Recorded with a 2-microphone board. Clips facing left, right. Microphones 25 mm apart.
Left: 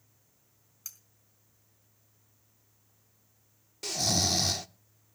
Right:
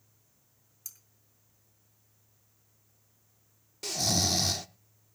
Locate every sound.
0.8 s cutlery clinking: 30° left (ahead or behind), 3.5 m
3.8 s snoring: centre (ahead or behind), 0.5 m